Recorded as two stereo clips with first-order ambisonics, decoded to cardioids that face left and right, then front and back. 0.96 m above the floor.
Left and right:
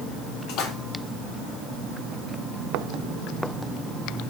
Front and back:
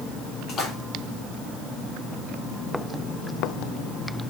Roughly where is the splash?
Ahead left.